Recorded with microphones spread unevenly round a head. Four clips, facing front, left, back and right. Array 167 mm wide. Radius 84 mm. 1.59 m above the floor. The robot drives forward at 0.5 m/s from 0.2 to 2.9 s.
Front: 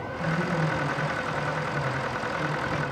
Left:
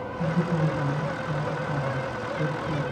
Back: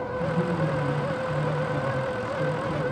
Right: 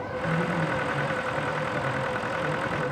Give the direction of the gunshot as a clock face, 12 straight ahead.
I don't hear a gunshot.